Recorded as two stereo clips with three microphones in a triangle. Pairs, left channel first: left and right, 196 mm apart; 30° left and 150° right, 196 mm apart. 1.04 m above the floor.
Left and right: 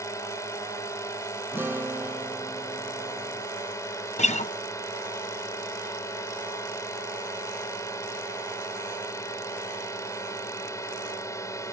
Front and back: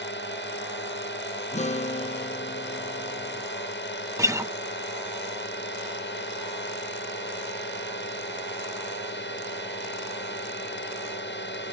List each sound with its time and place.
0.0 s a drone: 15° left
1.5 s a guitar: 15° right
4.2 s a guitar: 140° left